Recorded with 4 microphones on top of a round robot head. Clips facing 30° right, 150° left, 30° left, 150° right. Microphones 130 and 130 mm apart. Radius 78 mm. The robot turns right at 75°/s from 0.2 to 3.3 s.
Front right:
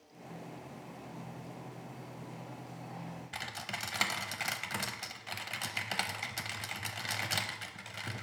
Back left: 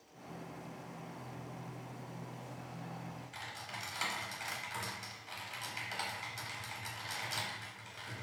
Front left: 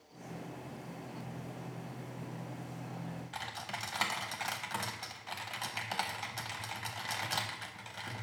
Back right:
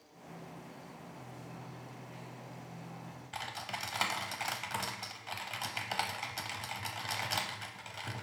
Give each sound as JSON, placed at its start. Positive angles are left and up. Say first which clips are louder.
{"t": 3.3, "sound": "typing on a keyboard", "louder": "front right 4 dB, even", "azimuth_deg": -60, "distance_m": 0.7}